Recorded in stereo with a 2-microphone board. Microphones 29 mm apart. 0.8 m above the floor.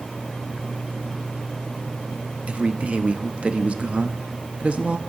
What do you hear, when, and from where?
2.5 s a man speaking: 45° right (ahead or behind), 0.7 m